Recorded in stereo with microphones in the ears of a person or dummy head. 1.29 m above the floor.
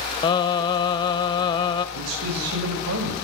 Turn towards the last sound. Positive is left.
turn(degrees=-85)